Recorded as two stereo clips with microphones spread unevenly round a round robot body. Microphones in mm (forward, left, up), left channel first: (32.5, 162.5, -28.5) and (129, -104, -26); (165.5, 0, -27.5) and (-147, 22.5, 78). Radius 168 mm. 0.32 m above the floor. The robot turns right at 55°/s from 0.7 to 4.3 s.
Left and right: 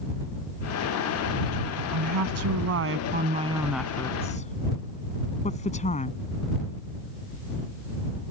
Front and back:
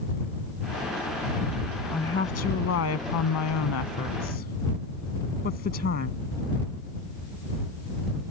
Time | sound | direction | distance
1.9 | a woman speaking | 85° right | ?